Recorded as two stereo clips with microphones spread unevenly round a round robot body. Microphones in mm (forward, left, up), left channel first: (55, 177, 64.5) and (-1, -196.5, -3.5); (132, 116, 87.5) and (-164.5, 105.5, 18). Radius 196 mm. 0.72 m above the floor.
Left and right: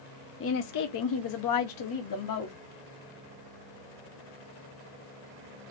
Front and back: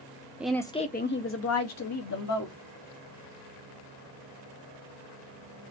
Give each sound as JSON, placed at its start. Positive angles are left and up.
{"t": 0.4, "sound": "a woman speaking", "azimuth_deg": 130, "distance_m": 0.7}